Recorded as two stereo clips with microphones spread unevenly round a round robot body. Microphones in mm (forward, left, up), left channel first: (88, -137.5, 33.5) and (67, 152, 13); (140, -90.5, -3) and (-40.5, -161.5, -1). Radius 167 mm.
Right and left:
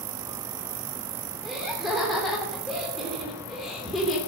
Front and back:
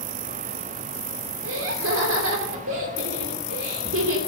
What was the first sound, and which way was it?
Laughter, 175° right.